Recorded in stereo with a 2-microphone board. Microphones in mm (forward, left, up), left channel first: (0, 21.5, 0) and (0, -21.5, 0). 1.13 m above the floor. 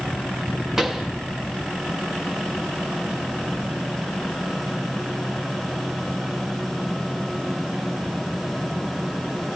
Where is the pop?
5° right (ahead or behind), 0.9 m.